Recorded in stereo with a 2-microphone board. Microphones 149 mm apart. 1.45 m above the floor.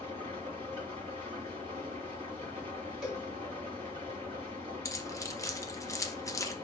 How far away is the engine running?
About 3.5 m.